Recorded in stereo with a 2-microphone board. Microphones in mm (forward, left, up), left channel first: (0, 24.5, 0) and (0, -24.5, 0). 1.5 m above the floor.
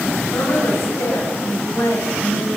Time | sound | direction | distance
0.3 | a woman speaking | 75° left (ahead or behind) | 10 m